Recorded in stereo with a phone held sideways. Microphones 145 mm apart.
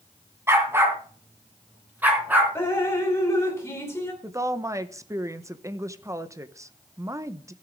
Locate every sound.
0.5 s a dog barking: 15° right (ahead or behind), 2.5 m; by 2.5 s 10° right (ahead or behind), 3.5 m
2.5 s dripping: 15° left (ahead or behind), 3 m
4.2 s a woman speaking: 20° right (ahead or behind), 0.9 m